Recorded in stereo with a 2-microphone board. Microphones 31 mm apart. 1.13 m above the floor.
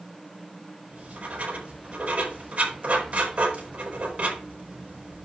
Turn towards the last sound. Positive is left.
turn(degrees=-55)  # may be behind; listen again after turning